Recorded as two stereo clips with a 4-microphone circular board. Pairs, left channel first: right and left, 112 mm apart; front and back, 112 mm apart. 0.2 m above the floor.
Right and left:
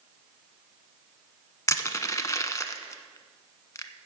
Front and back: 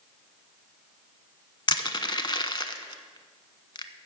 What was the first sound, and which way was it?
Crushing, 35° right.